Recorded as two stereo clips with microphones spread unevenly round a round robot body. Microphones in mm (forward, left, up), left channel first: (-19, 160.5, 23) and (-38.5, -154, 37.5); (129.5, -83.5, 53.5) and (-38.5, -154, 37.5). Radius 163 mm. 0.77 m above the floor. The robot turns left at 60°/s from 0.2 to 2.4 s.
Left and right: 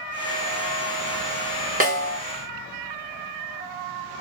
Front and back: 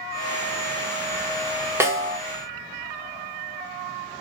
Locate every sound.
1.8 s a snare drum: 115° right, 1.1 m; by 2.2 s 140° right, 1.1 m